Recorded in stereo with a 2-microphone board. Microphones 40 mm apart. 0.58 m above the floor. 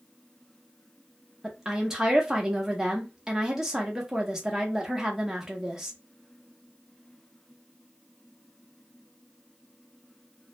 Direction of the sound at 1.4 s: 10° right (ahead or behind).